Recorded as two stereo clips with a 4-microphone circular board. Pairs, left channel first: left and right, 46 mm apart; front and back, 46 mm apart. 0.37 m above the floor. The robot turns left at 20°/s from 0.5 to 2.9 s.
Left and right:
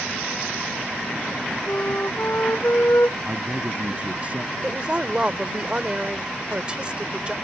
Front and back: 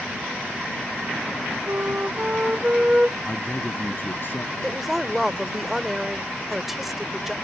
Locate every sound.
1.7 s a flute: 130° left; by 3.2 s 105° left
3.3 s a man speaking: 35° right
4.6 s a woman speaking: 105° right